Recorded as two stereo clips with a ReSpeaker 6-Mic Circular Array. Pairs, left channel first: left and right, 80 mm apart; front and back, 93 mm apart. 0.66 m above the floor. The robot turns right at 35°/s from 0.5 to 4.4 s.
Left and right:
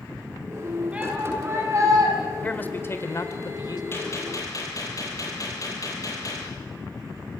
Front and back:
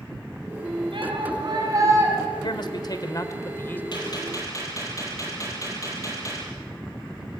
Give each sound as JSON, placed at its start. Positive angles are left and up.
{"t": 0.9, "sound": "a shout", "azimuth_deg": -165, "distance_m": 6.0}
{"t": 2.4, "sound": "a man speaking", "azimuth_deg": 20, "distance_m": 2.0}
{"t": 3.9, "sound": "a gunshot", "azimuth_deg": 35, "distance_m": 7.0}